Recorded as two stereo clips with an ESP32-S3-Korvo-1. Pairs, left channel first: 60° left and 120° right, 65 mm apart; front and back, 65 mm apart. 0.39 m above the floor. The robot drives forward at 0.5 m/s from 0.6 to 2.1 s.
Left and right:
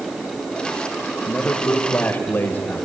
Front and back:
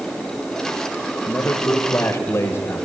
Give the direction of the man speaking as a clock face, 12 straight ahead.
12 o'clock.